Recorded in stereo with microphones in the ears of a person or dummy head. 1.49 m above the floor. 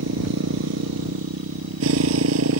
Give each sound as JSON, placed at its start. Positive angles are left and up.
{"t": 0.0, "sound": "a motorcycle", "side_deg": -70}